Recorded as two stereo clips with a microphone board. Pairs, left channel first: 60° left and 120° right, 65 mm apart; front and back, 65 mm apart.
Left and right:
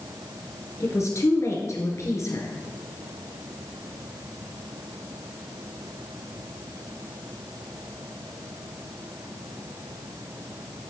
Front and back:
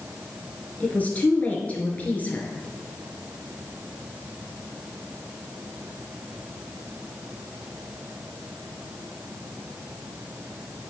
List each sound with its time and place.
0.8 s a woman speaking: 60° left, 1.5 m